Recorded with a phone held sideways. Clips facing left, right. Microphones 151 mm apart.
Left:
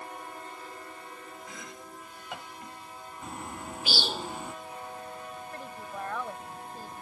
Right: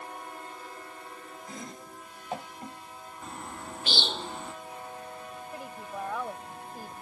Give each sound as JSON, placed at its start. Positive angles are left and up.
{"t": 1.5, "sound": "chopping", "side_deg": -35}
{"t": 3.2, "sound": "a bird", "side_deg": 10}
{"t": 5.5, "sound": "a woman speaking", "side_deg": -10}